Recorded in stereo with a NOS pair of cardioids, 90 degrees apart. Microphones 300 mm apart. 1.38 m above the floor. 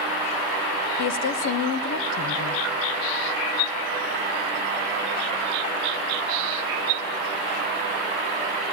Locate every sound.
1.0 s a woman speaking: 60° left, 1.5 m